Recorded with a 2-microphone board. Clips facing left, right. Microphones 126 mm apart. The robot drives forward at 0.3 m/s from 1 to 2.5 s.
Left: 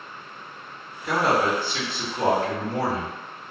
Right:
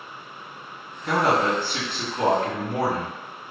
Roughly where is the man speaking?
Right.